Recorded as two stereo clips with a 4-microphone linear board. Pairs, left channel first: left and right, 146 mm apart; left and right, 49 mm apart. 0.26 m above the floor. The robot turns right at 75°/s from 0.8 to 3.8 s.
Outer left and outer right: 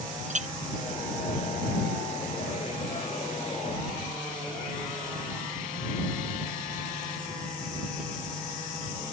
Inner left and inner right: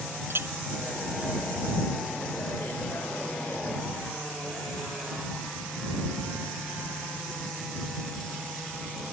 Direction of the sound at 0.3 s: 55° right (ahead or behind).